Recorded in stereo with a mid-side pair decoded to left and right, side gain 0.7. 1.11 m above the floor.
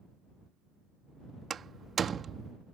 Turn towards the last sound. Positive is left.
turn(degrees=-30)